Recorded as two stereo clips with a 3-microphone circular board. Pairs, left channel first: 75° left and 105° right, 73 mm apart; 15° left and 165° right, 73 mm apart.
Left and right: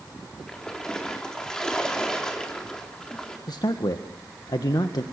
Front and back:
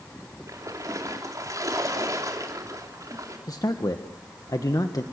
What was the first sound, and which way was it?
A splash, 155° left.